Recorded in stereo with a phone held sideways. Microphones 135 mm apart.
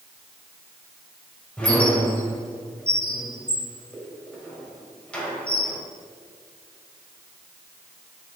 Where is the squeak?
10° left (ahead or behind), 2.5 m.